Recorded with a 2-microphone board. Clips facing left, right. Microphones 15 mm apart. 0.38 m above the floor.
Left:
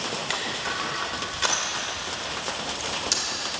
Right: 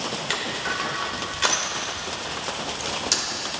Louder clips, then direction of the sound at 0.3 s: Right 3 dB; 10° right (ahead or behind).